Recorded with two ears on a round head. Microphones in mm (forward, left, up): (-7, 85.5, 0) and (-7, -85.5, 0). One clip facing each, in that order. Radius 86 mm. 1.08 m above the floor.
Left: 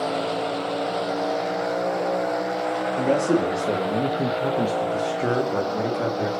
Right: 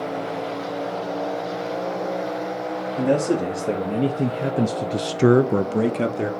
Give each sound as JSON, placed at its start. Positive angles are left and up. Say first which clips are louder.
{"t": 3.0, "sound": "a man speaking", "louder": "right 1 dB", "side_deg": -5, "distance_m": 2.0}